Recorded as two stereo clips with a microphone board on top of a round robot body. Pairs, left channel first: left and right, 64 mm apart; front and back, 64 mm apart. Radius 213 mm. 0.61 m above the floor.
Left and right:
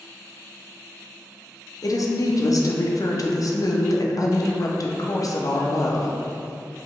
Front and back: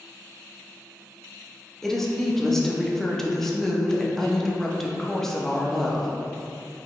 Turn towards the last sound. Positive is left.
turn(degrees=85)